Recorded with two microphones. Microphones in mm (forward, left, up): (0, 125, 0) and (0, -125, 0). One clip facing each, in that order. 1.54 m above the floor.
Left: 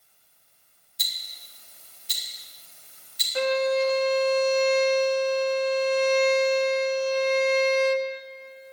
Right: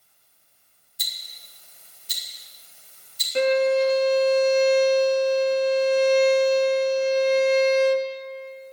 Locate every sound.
1.0 s ticking: 85° left, 4 m
3.4 s a violin: 30° right (ahead or behind), 0.9 m